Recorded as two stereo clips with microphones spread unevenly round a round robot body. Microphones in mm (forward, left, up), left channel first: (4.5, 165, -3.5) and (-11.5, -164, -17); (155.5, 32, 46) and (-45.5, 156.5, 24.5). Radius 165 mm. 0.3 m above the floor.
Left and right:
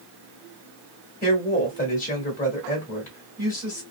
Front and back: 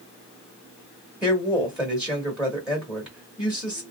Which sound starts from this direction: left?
A woman speaking, at 1.2 s.